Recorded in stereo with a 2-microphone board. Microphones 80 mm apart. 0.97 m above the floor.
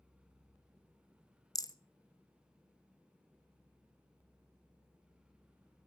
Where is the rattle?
45° left (ahead or behind), 0.6 m.